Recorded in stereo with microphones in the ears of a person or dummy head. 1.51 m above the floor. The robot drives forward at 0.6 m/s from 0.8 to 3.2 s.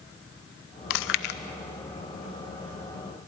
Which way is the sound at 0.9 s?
70° left (ahead or behind).